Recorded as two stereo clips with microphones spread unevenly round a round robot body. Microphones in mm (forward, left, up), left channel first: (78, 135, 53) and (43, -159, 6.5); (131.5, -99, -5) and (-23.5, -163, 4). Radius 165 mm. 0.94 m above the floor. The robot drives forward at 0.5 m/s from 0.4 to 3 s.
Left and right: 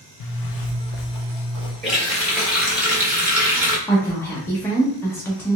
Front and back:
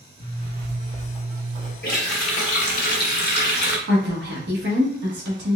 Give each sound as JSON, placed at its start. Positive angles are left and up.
{"t": 0.2, "sound": "a zipper", "azimuth_deg": 80, "distance_m": 0.6}
{"t": 1.8, "sound": "a running tap", "azimuth_deg": -5, "distance_m": 2.0}
{"t": 3.9, "sound": "a woman speaking", "azimuth_deg": 170, "distance_m": 0.8}